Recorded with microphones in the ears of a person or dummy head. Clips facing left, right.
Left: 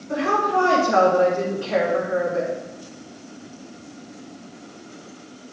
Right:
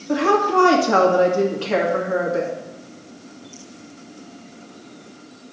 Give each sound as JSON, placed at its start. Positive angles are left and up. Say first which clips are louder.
{"t": 0.1, "sound": "a woman speaking", "louder": "right 4 dB", "side_deg": -75, "distance_m": 1.9}